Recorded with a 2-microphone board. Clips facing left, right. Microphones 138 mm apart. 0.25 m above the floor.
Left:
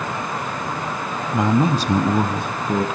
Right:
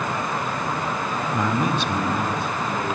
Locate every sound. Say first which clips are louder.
1.3 s a man speaking: left 6 dB; 15° left (ahead or behind), 1.1 m; by 2.9 s 60° left (ahead or behind), 2.5 m